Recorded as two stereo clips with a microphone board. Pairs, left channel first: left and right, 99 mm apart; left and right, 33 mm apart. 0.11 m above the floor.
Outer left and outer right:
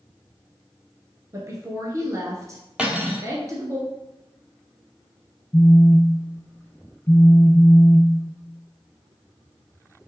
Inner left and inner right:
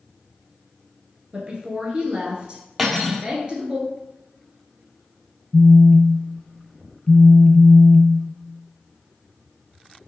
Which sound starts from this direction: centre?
Cutlery clinking, at 2.8 s.